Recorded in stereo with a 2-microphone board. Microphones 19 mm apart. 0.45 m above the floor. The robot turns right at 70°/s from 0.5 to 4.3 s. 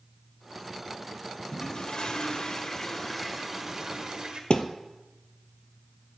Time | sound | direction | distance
1.5 | a toilet flushing | 55° left | 1.9 m
4.5 | a thud | 65° left (ahead or behind) | 1.1 m